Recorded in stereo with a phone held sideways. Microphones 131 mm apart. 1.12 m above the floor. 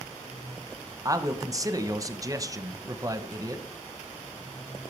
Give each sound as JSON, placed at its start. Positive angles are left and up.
{"t": 1.1, "sound": "a man speaking", "side_deg": -25, "distance_m": 0.7}